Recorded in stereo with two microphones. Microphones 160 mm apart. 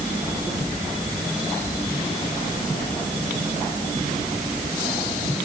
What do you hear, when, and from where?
Only background noise.